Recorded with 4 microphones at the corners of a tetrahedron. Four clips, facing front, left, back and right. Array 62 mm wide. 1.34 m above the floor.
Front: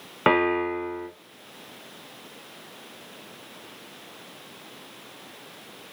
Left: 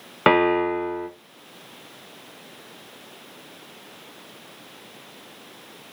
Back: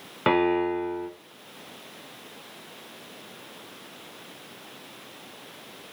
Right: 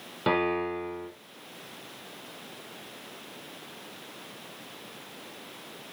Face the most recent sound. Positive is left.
turn(degrees=70)